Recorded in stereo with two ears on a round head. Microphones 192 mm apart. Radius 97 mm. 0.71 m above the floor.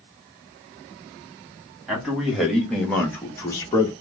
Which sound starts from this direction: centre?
A man speaking, at 1.9 s.